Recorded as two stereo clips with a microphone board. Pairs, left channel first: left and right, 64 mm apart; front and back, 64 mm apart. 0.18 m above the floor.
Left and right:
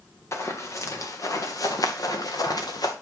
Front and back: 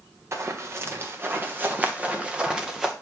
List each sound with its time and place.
0.3 s running footsteps: 135° left, 2.5 m; by 2.9 s 95° left, 2.0 m